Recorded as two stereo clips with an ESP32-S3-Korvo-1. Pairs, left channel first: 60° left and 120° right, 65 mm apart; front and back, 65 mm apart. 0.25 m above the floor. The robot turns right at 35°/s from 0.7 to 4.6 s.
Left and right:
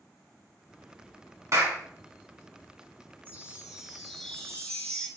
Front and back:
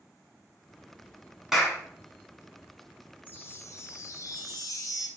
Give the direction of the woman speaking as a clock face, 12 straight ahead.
No woman speaking in this recording.